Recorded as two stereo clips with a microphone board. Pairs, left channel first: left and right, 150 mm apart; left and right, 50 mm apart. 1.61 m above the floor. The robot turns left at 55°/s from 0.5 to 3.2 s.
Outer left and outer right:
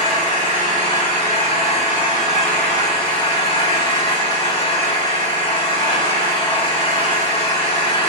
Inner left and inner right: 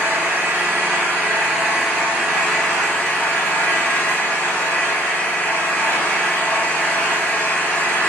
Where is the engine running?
80° right, 1.9 m; by 8.1 s 135° left, 1.9 m.